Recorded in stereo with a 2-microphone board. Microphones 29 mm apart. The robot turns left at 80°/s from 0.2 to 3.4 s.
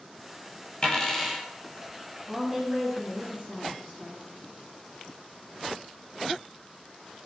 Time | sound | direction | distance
0.8 | a dropped coin | 40° left | 1.1 m
2.3 | a woman speaking | straight ahead | 2 m